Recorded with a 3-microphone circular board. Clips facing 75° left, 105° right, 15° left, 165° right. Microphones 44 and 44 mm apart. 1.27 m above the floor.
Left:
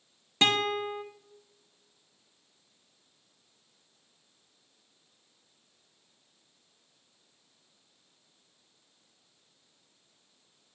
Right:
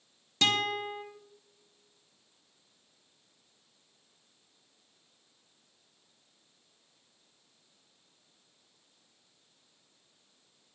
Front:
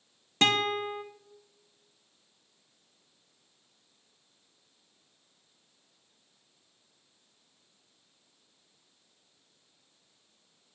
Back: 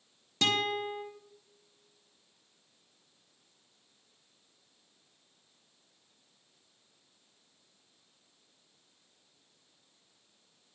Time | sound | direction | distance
0.4 | a guitar | 30° left | 0.6 m